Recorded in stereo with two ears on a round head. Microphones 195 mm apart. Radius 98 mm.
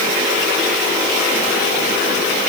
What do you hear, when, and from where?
Only background noise.